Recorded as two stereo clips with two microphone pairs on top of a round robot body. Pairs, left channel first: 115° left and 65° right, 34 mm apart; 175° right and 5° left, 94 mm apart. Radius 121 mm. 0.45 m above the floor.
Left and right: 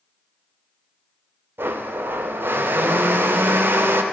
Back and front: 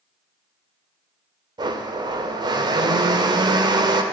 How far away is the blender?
About 0.5 m.